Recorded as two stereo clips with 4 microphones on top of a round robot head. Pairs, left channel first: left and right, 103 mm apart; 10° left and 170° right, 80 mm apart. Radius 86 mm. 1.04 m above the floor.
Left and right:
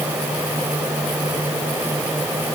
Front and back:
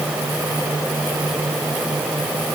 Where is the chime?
No chime in this recording.